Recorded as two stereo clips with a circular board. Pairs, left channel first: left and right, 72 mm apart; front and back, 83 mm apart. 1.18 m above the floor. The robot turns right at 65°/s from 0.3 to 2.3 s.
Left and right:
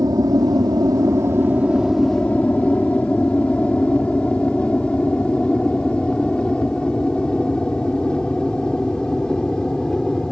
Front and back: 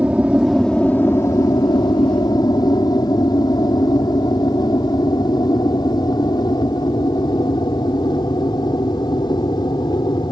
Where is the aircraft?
105° right; by 10.3 s 10° left.